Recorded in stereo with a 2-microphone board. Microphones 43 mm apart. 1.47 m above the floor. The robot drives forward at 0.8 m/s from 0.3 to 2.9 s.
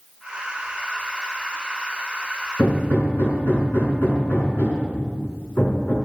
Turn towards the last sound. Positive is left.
turn(degrees=55)  # may be behind; listen again after turning